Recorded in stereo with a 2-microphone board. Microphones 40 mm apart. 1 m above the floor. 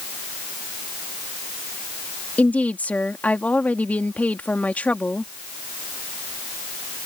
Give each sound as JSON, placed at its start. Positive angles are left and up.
{"t": 2.4, "sound": "a woman speaking", "side_deg": 40}